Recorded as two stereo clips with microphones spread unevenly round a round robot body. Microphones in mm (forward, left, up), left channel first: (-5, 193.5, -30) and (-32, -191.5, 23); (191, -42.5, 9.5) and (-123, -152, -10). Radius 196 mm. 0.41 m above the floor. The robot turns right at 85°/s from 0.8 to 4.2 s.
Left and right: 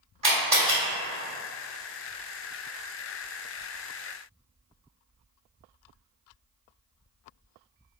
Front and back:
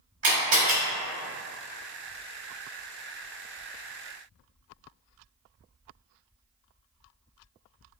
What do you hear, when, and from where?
0.2 s a camera shutter: 165° right, 1.4 m